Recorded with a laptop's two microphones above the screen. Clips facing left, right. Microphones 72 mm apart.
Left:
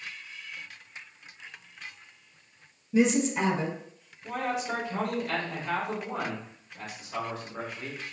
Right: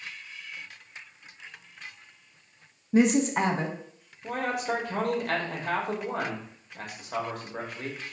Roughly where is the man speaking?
Right.